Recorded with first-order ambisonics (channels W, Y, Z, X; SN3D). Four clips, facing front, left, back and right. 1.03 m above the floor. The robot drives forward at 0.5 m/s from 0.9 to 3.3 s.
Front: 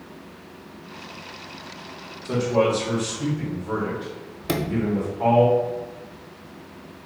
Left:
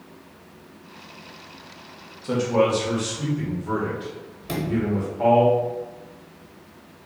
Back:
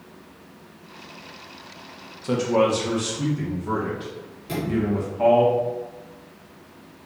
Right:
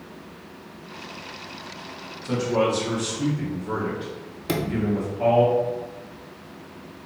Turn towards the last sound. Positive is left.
turn(degrees=-35)